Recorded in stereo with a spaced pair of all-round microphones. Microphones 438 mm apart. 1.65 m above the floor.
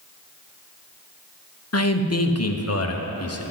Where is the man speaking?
35° left (ahead or behind), 0.9 m.